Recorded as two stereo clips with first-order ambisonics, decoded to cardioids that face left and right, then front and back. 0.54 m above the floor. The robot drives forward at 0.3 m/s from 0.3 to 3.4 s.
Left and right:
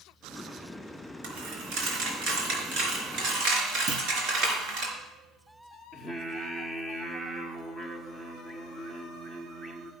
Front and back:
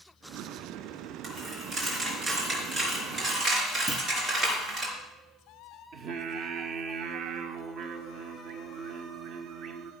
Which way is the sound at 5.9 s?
170° right.